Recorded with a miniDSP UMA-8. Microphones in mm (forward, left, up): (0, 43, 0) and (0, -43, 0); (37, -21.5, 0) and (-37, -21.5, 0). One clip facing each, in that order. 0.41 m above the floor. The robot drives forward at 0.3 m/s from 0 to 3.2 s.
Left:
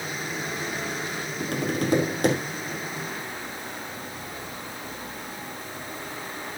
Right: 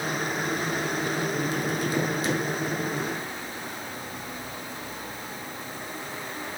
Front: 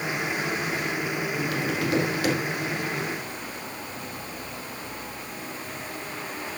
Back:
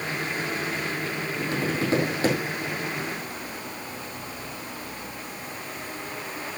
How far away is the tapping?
About 4 m.